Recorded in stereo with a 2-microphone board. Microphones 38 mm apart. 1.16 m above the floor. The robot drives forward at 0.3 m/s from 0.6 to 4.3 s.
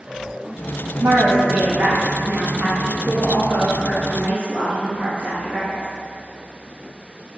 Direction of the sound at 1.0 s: 65° right (ahead or behind).